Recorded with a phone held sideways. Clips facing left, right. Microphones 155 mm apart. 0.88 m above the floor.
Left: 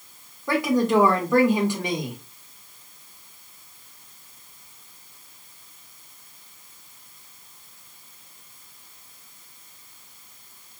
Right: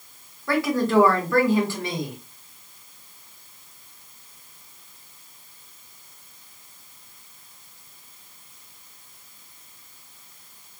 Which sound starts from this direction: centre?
A woman speaking, at 0.5 s.